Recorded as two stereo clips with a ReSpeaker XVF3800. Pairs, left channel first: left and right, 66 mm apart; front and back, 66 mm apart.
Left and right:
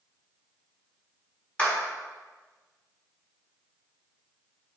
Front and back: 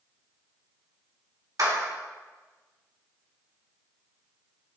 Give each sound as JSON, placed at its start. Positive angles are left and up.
{"t": 1.6, "sound": "a clap", "azimuth_deg": 160, "distance_m": 2.0}